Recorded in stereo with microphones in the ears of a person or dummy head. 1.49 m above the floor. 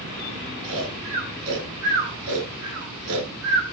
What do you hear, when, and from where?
0.6 s snoring: 60° right (ahead or behind), 9.5 m